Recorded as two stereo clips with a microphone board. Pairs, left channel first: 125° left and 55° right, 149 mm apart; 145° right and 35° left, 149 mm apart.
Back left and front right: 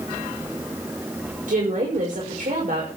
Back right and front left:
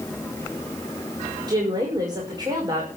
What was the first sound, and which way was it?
A woman speaking, 30° right.